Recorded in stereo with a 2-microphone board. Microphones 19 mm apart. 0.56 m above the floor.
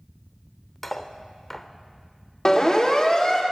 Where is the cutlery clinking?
10° left (ahead or behind), 0.7 m.